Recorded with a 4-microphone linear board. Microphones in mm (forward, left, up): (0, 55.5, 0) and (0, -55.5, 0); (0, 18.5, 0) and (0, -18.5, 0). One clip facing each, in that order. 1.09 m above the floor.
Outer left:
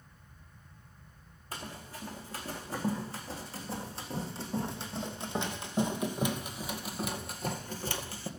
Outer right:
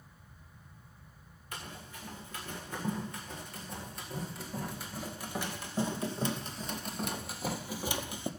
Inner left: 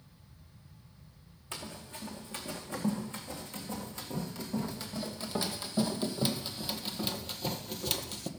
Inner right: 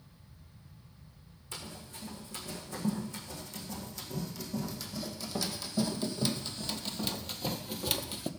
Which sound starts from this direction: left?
Running footsteps, at 1.5 s.